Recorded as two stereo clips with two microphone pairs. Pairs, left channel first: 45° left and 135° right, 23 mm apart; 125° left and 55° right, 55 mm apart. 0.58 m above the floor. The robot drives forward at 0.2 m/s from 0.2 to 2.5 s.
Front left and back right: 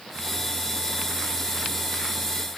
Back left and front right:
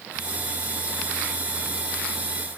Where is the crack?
I don't hear a crack.